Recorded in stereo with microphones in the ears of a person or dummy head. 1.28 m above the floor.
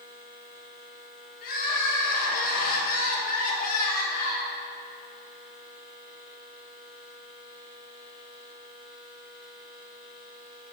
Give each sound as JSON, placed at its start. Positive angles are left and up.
{"t": 1.4, "sound": "crying", "side_deg": 45, "distance_m": 1.2}